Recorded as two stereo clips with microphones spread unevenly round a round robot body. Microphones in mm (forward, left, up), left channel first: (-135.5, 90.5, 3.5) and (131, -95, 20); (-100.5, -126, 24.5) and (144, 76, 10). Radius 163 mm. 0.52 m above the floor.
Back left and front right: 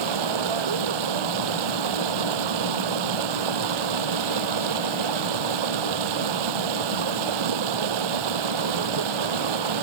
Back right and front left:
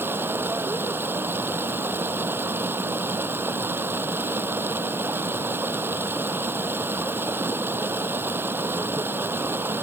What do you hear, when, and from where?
0.0 s running water: 45° right